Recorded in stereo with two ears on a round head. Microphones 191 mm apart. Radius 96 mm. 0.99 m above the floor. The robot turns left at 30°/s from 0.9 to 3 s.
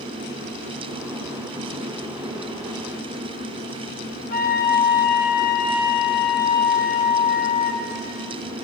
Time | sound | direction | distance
4.3 | a flute | 40° left (ahead or behind) | 0.8 m